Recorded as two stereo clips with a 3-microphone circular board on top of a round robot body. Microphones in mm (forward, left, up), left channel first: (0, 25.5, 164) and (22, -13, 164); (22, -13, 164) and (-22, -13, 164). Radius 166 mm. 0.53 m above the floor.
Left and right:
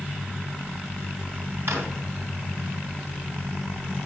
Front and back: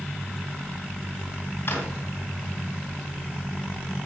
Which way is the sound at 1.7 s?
35° right.